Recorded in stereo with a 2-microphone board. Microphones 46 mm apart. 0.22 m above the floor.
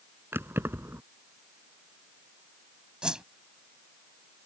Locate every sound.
0.3 s keys jangling: 60° right (ahead or behind)
3.0 s a whoosh: 20° right (ahead or behind)